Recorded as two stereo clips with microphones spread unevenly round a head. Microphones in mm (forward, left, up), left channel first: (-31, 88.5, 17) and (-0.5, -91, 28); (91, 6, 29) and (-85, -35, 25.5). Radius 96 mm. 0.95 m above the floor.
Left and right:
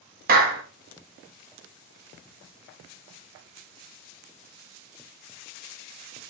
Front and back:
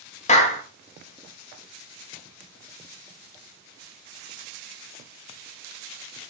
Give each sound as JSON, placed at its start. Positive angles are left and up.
{"t": 0.3, "sound": "a clap", "azimuth_deg": -40, "distance_m": 1.4}